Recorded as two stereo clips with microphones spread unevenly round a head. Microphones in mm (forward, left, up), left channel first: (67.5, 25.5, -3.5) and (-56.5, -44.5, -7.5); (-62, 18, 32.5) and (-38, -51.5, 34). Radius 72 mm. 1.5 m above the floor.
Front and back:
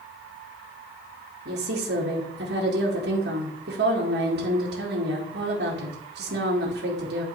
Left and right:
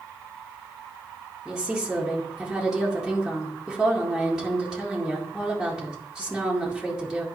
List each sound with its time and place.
1.4 s a woman speaking: 155° right, 2 m